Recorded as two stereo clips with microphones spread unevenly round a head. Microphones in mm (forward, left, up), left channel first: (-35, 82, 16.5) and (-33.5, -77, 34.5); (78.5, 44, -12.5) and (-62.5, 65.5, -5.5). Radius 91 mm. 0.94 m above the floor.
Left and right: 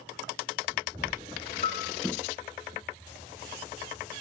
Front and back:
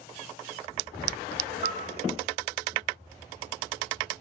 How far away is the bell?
About 2 m.